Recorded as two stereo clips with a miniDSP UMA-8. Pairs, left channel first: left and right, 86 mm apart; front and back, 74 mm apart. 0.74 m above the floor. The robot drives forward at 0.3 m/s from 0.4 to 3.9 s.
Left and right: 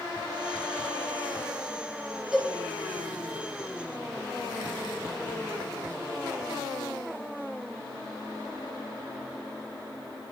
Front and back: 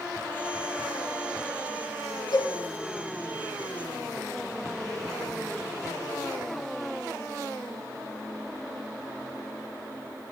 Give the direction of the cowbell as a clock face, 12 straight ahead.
12 o'clock.